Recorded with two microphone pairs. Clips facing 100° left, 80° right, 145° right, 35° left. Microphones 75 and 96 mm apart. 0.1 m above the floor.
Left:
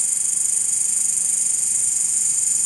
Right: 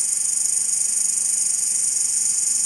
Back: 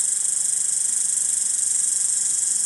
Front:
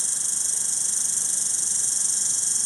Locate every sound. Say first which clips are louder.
0.0 s an insect: even, front 2 dB; 15° right, 0.8 m